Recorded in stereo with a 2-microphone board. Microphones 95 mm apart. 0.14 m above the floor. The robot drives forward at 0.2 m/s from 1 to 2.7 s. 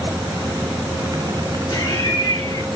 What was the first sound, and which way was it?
Laughter, 45° left (ahead or behind).